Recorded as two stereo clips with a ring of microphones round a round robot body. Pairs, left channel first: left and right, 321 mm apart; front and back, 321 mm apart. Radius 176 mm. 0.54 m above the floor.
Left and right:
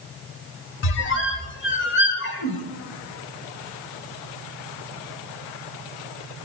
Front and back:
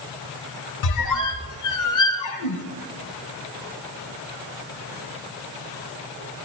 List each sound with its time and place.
0.8 s a squeak: 35° left, 0.8 m